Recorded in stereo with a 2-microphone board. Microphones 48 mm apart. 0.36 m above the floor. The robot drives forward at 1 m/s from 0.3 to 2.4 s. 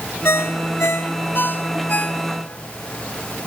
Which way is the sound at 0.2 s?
70° left (ahead or behind).